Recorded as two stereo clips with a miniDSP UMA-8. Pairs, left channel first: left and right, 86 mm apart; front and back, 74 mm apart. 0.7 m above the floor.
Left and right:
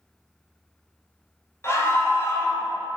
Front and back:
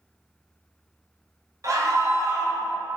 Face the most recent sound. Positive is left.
turn(degrees=145)